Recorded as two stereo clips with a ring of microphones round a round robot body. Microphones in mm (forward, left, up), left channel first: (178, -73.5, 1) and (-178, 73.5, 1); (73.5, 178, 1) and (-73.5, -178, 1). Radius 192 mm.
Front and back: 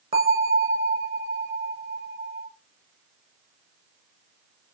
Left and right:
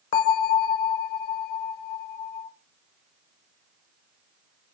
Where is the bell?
80° left, 0.6 m.